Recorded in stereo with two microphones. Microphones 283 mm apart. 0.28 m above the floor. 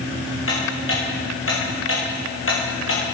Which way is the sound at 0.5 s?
50° left (ahead or behind).